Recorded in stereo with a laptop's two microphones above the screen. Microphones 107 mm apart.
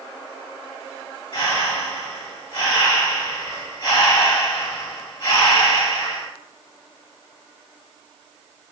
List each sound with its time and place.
1.3 s breathing: 55° left (ahead or behind), 1.8 m